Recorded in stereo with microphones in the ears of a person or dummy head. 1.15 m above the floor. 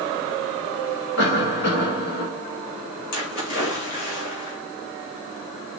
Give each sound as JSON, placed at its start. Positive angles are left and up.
{"t": 1.2, "sound": "a cough", "side_deg": 70, "distance_m": 3.5}
{"t": 3.1, "sound": "a splash", "side_deg": 60, "distance_m": 3.0}